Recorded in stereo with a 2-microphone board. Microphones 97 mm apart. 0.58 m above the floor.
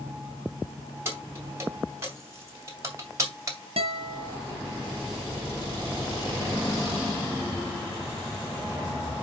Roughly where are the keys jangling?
Right.